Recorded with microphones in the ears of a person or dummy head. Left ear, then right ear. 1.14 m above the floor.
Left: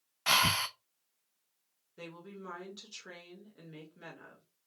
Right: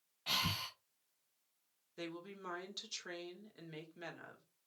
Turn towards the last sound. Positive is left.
turn(degrees=-30)  # may be behind; listen again after turning